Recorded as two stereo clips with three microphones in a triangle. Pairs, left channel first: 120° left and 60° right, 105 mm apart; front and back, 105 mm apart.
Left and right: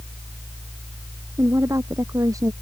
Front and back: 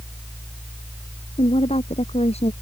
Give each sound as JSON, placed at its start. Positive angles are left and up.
{"t": 1.4, "sound": "a woman speaking", "azimuth_deg": 0}